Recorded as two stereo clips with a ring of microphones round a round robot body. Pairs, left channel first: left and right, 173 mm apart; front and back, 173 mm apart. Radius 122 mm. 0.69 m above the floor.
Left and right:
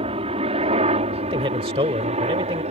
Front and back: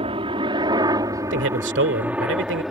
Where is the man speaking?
160° right.